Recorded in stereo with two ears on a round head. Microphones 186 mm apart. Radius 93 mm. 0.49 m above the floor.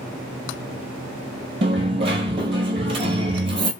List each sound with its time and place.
1.6 s a dropped coin: 25° right (ahead or behind), 0.5 m